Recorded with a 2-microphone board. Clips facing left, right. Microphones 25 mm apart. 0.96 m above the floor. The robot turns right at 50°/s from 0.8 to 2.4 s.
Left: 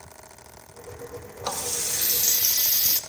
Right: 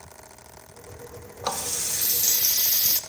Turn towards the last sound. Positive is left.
turn(degrees=35)